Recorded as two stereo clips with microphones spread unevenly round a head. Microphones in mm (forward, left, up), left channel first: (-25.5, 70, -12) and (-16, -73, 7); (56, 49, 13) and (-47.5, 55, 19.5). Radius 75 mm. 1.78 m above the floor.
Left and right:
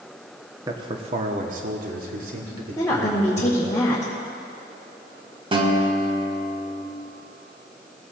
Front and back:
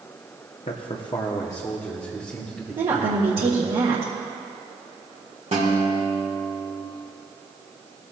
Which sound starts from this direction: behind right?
A guitar, at 5.5 s.